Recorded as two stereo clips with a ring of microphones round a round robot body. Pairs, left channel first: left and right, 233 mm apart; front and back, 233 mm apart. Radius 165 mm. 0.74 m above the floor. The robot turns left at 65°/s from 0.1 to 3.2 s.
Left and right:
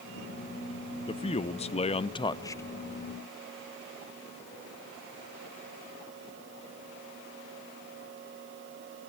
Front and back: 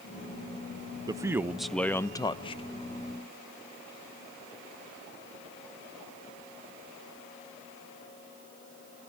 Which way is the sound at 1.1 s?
125° left.